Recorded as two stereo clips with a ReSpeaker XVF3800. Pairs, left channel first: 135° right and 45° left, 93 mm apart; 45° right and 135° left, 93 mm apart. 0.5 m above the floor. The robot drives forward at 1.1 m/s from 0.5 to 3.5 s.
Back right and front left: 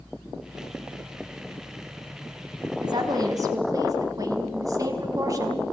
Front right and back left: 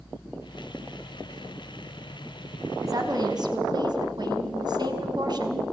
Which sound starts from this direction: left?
A woman speaking, at 2.8 s.